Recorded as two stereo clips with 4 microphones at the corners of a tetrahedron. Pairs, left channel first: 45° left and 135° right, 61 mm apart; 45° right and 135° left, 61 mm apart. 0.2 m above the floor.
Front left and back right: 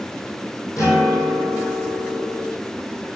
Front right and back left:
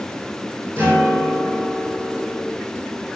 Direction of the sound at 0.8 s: 20° left.